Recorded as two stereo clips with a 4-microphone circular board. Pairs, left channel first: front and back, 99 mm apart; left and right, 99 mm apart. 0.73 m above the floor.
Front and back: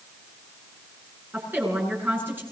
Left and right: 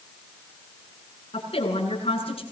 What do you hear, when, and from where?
1.3 s a woman speaking: 110° left, 8.5 m